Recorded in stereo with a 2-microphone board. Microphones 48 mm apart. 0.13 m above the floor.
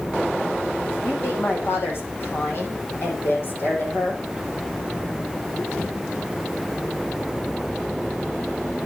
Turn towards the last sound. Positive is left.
turn(degrees=45)  # may be behind; listen again after turning